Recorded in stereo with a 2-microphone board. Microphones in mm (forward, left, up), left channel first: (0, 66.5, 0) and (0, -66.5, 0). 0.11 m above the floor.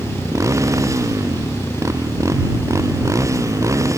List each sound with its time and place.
0.0 s a motorcycle: 25° right (ahead or behind)